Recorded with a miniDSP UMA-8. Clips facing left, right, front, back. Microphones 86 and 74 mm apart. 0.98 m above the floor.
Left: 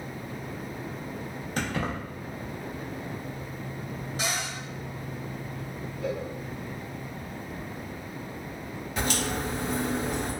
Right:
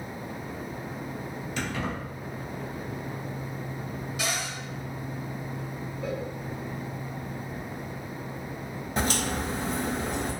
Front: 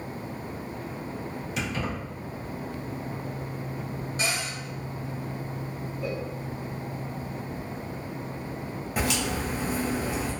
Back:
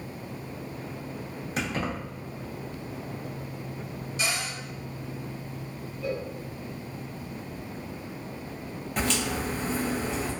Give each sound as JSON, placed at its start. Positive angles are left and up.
{"t": 1.6, "sound": "keys jangling", "azimuth_deg": 135, "distance_m": 0.7}
{"t": 4.2, "sound": "a cupboard door", "azimuth_deg": 40, "distance_m": 1.1}
{"t": 6.0, "sound": "a cowbell", "azimuth_deg": -30, "distance_m": 1.3}
{"t": 9.0, "sound": "a crack", "azimuth_deg": -75, "distance_m": 0.9}